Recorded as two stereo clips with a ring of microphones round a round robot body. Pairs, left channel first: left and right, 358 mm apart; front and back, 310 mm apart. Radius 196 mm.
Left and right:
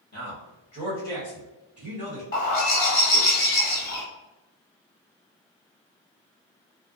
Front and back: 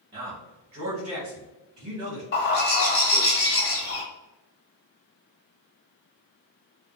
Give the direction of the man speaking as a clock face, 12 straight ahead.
7 o'clock.